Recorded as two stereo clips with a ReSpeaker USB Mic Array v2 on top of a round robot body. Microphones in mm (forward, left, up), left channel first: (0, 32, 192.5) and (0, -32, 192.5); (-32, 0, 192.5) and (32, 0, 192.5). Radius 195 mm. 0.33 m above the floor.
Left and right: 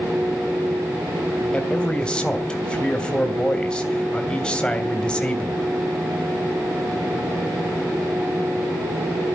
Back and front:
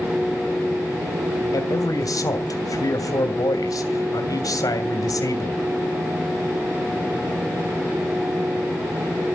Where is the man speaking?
165° left, 3 m.